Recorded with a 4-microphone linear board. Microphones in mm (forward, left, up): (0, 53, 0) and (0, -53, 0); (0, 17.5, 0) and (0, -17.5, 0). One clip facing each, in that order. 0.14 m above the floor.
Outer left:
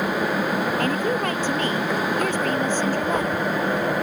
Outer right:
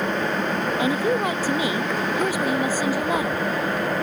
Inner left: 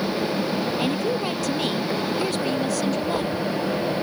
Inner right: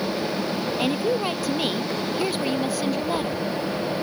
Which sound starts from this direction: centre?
A woman speaking, at 0.8 s.